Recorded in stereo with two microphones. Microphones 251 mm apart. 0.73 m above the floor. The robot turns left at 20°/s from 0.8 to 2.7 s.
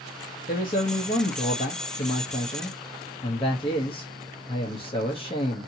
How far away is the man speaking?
About 0.8 m.